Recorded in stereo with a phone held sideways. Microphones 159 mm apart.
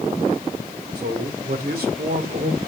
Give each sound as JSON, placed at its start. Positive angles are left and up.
{"t": 0.9, "sound": "a man speaking", "side_deg": -85, "distance_m": 2.5}